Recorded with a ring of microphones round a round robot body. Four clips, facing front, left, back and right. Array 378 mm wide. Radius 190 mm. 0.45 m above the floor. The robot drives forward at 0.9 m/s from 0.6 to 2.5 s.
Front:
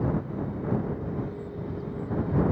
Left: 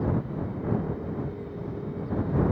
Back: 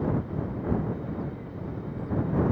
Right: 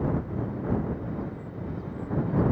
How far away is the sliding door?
No sliding door in this recording.